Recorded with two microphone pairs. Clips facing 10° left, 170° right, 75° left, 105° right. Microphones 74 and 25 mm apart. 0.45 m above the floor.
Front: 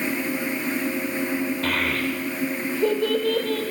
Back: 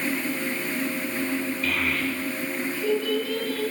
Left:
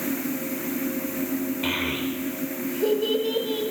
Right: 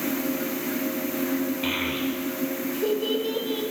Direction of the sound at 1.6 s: Straight ahead.